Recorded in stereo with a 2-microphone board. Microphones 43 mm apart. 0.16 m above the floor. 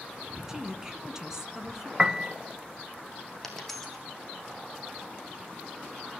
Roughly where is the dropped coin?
Centre.